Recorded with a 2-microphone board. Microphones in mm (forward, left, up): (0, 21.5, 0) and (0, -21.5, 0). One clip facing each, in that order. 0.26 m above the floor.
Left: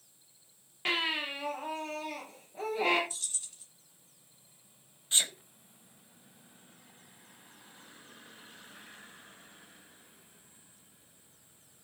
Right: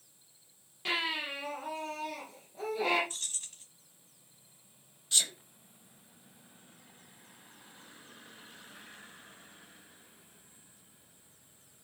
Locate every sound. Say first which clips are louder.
0.8 s a baby crying: left 2 dB; 45° left (ahead or behind), 5 m
3.1 s keys jangling: right 2 dB; 55° right (ahead or behind), 1.3 m
5.1 s a sneeze: left 1 dB; 30° left (ahead or behind), 1.0 m